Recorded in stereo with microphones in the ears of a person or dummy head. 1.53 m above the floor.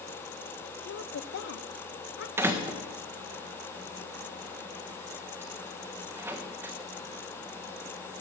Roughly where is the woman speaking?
Left.